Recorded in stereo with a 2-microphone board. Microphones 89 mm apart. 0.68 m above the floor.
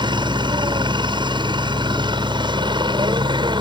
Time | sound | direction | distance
0.0 | a helicopter | 60° right (ahead or behind) | ?